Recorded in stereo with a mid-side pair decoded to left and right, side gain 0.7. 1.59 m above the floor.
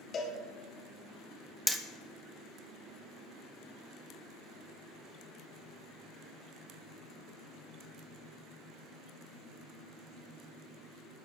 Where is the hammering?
Straight ahead, 0.7 m.